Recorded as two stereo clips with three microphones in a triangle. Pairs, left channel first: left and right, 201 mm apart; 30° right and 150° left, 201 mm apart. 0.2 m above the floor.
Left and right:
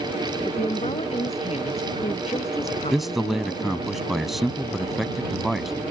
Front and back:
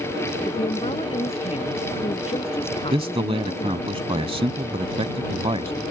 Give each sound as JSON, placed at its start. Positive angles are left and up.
{"t": 0.5, "sound": "a woman speaking", "azimuth_deg": 30}
{"t": 2.9, "sound": "a man speaking", "azimuth_deg": 180}